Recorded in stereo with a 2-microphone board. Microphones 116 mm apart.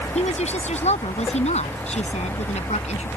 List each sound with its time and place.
0.1 s a woman speaking: 85° left